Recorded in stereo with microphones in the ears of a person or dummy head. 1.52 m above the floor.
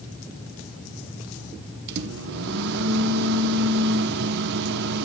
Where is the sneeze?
No sneeze in this recording.